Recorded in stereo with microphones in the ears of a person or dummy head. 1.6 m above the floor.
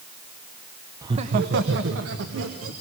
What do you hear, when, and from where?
1.0 s laughter: 20° right (ahead or behind), 0.9 m; by 2.7 s 85° right, 3 m